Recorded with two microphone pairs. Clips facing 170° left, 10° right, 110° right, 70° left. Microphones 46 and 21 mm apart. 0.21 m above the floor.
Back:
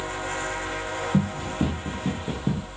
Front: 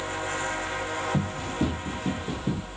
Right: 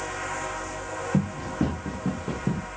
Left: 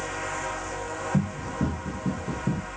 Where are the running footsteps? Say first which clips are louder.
Back 3 dB, right 3 dB; 110° right, 1.8 m; by 2.7 s 135° right, 1.2 m.